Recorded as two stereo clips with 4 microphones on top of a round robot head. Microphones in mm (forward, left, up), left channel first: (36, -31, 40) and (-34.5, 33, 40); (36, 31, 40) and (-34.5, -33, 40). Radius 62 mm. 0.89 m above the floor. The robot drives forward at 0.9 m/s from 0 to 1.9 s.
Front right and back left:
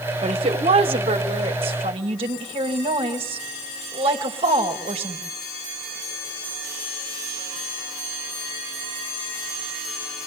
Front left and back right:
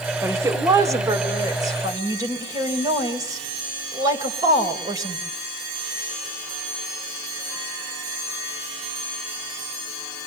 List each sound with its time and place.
0.2 s a woman speaking: 160° left, 2 m; by 5.2 s 170° left, 3.5 m